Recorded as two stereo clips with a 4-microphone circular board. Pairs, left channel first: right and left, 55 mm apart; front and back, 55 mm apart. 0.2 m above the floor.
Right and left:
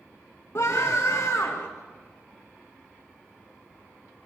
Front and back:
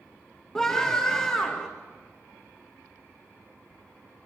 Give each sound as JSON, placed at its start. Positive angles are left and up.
{"t": 0.6, "sound": "a scream", "azimuth_deg": -75, "distance_m": 2.0}